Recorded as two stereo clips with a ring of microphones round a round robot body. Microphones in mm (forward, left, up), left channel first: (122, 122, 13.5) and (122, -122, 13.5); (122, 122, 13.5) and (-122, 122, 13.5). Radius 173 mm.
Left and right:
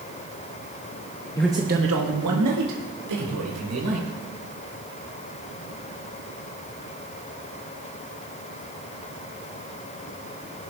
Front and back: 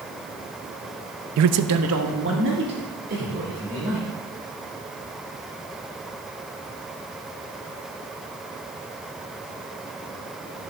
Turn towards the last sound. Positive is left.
turn(degrees=-110)